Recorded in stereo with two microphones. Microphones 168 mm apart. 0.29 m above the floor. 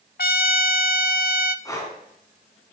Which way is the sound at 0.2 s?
65° left (ahead or behind).